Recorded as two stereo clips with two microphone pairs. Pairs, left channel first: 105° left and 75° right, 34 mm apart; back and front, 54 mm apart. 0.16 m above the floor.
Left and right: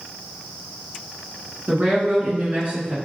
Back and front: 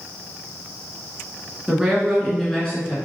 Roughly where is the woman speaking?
Right.